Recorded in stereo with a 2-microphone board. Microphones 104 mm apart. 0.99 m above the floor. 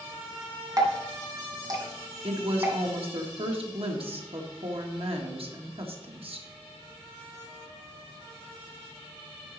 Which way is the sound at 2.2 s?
65° right (ahead or behind).